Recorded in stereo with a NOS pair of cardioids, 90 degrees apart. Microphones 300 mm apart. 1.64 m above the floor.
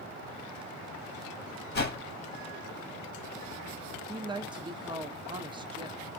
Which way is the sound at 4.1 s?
15° right.